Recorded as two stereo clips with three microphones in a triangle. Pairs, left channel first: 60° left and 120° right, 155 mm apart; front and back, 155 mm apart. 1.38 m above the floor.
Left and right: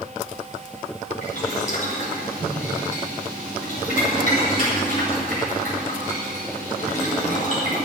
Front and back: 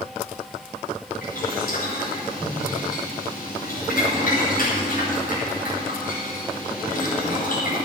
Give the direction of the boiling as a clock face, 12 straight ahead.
11 o'clock.